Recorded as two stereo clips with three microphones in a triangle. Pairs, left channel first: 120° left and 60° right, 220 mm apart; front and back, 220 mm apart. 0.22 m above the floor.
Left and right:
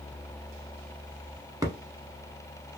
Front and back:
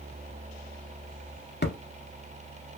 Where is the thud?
5° left, 0.6 m.